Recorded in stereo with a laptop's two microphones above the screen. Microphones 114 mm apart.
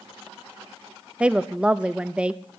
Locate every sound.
1.2 s a woman speaking: 10° right (ahead or behind), 0.5 m